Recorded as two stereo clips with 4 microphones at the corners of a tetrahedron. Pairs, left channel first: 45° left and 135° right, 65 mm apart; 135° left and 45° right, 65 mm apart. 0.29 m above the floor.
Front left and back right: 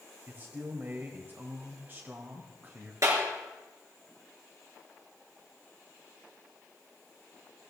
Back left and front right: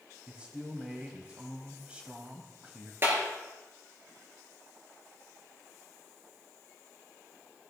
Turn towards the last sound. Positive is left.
turn(degrees=-100)